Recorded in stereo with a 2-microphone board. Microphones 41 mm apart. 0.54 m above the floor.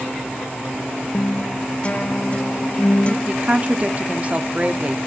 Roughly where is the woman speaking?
Right.